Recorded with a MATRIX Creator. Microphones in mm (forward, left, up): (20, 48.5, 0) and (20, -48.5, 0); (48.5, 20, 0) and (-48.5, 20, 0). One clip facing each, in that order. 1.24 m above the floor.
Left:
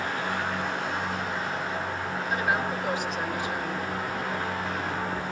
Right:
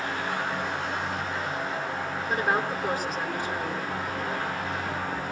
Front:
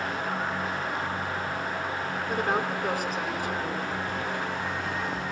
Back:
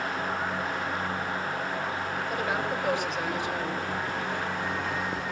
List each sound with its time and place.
2.3 s a woman speaking: 40° right, 5.5 m